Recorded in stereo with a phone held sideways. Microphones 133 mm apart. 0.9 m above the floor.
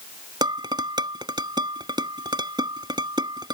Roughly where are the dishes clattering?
Right.